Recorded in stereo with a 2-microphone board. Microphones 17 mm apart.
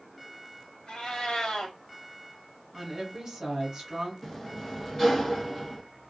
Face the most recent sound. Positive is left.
turn(degrees=20)  # may be behind; listen again after turning